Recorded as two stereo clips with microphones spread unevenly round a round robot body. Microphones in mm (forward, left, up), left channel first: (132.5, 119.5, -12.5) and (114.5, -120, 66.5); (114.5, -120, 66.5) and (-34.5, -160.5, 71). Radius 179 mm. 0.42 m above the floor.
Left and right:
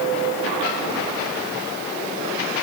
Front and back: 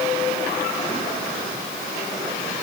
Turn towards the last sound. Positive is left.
No sound to turn to.